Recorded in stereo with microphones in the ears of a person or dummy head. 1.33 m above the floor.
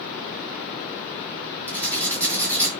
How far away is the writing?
About 5.5 m.